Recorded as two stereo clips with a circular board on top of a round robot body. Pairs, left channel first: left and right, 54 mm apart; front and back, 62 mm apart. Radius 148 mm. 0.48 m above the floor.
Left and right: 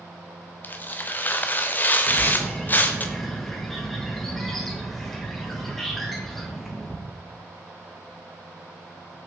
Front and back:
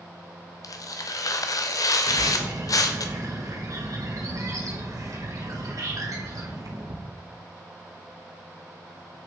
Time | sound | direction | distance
0.6 | tearing paper | 30° left | 0.6 m
2.0 | a bird | 175° left | 2 m